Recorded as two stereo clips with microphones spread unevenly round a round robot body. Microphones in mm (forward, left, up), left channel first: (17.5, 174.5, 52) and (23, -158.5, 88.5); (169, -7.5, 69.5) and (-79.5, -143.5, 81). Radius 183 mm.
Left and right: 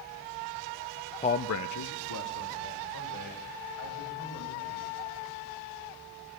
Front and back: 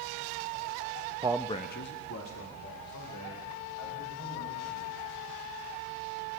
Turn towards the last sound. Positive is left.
turn(degrees=60)